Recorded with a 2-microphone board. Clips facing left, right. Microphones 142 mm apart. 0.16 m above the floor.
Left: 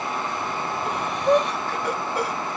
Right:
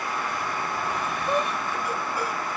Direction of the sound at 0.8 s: 75° left (ahead or behind).